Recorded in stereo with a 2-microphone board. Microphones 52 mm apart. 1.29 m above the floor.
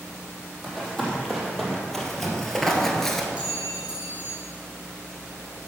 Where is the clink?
20° right (ahead or behind), 2.5 m.